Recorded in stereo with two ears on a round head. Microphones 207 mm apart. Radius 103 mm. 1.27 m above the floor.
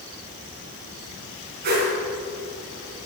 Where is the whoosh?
40° right (ahead or behind), 4 m.